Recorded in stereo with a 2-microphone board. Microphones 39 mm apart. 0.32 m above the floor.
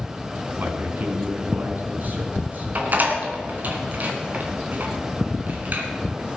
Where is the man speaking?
50° right (ahead or behind), 2.5 m; by 2.6 s 45° right (ahead or behind), 3.5 m.